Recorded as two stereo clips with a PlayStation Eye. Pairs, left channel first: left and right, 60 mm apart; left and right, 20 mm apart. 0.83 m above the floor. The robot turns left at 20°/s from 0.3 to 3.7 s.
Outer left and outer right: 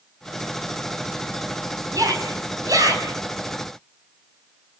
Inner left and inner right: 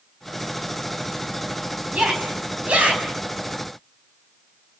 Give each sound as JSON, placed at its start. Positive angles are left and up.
{"t": 1.9, "sound": "a shout", "side_deg": -80, "distance_m": 5.5}